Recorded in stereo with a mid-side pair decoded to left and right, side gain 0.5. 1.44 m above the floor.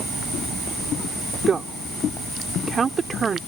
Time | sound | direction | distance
1.5 | a woman speaking | 40° right | ?